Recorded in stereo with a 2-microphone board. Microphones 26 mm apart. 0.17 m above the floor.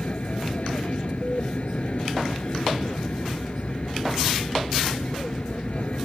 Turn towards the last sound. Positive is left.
turn(degrees=55)  # may be behind; listen again after turning